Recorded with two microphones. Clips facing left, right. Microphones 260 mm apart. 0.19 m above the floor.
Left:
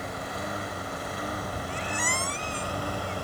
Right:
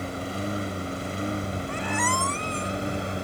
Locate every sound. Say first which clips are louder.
0.0 s a lawn mower: right 5 dB; 30° right (ahead or behind); by 3.3 s 20° right (ahead or behind)
1.7 s a squeak: right 5 dB; 60° right (ahead or behind)